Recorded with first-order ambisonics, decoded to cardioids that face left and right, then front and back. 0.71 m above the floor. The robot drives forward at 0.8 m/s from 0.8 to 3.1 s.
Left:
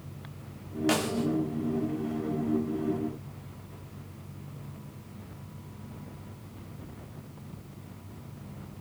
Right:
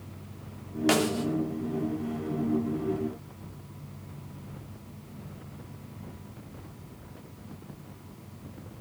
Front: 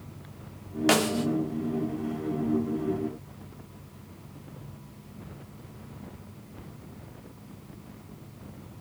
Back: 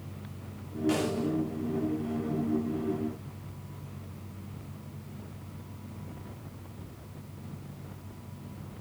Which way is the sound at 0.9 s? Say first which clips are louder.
Right 3 dB, front 6 dB; 15° right.